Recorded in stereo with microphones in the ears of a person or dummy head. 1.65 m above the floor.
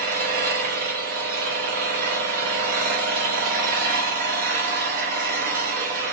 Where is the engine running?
40° right (ahead or behind), 0.8 m.